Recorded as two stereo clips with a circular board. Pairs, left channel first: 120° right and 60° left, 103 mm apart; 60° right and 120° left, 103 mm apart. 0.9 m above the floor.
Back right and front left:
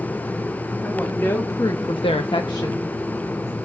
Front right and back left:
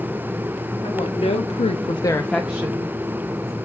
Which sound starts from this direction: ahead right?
A woman speaking, at 0.8 s.